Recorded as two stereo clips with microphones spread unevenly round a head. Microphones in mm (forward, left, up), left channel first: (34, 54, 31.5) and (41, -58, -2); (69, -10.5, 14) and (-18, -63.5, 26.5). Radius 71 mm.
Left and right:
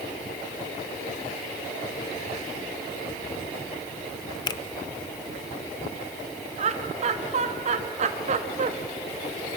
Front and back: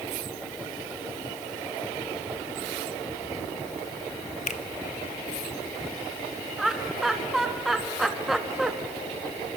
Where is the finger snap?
65° left, 0.9 m.